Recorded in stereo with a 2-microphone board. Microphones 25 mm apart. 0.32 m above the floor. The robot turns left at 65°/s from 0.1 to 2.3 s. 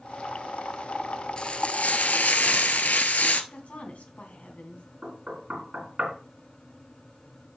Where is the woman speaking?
60° left (ahead or behind), 3 m.